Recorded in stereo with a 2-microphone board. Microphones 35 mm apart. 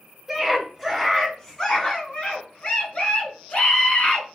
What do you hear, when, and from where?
0.3 s a scream: 5° right (ahead or behind), 1.5 m; by 4.3 s 50° left (ahead or behind), 2 m